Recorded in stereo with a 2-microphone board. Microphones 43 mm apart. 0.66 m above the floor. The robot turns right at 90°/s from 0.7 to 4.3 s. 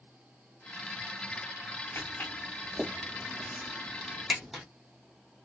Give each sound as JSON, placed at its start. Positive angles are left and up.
{"t": 1.9, "sound": "footsteps", "side_deg": 65, "distance_m": 2.0}